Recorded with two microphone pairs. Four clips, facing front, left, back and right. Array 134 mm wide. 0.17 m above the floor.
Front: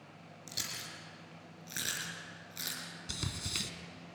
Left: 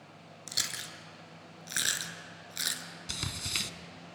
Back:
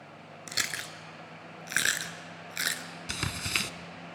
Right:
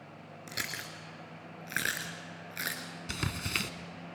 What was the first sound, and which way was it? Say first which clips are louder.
Chewing: right 2 dB, back 10 dB; 175° right.